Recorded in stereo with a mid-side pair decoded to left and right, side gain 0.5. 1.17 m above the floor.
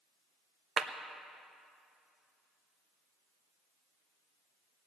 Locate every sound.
0.8 s a clap: 40° right, 1.1 m